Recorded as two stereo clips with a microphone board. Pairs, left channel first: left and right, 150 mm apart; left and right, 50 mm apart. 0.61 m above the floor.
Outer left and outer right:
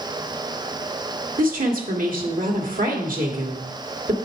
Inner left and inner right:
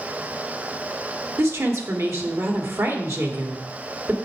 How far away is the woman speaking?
About 1.8 m.